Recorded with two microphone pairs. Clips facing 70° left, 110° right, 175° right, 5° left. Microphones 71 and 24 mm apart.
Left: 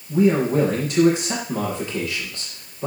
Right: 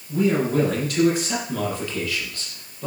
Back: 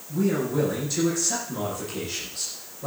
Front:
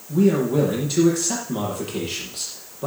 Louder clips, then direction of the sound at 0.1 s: Left 3 dB, front 6 dB; straight ahead.